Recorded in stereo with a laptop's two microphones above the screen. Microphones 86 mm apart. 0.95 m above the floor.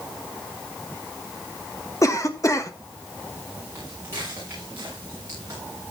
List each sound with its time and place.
2.0 s a cough: 40° left (ahead or behind), 1.1 m
3.8 s footsteps: 30° right (ahead or behind), 6.5 m; by 5.6 s 40° right (ahead or behind), 6.5 m